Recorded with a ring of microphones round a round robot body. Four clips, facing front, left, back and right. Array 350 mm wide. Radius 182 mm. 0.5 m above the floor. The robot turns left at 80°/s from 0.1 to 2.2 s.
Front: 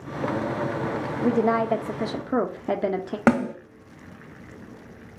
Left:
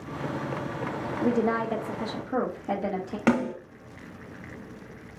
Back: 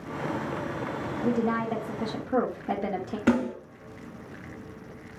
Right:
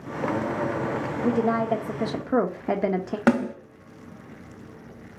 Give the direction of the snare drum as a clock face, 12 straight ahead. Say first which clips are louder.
Right 2 dB, front 3 dB; 12 o'clock.